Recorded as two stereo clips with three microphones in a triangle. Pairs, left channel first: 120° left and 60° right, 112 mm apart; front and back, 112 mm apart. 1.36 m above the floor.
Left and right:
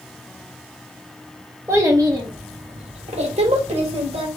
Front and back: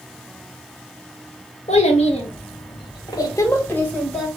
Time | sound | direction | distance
1.7 | a child speaking | 5° left | 1.1 m